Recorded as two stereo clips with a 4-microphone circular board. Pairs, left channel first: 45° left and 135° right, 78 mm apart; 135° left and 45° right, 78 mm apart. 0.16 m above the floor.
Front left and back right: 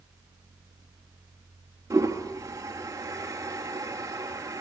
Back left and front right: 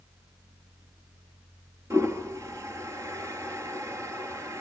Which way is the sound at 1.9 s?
90° right.